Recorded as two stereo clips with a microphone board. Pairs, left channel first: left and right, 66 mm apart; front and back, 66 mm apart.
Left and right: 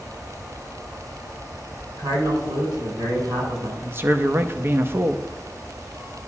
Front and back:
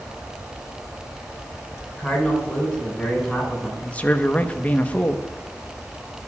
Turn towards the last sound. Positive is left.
turn(degrees=-60)